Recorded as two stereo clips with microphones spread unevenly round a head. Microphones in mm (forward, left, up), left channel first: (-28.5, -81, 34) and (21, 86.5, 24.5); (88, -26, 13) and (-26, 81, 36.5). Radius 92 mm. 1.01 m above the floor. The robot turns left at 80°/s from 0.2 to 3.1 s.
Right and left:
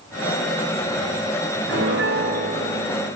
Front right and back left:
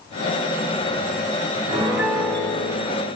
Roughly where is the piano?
Left.